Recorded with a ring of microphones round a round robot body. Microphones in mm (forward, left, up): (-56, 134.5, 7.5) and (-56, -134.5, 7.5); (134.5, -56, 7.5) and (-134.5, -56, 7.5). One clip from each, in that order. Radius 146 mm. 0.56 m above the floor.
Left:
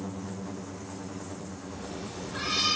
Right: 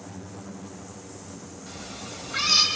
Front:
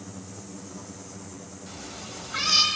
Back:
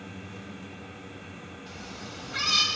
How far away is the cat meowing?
About 1.5 m.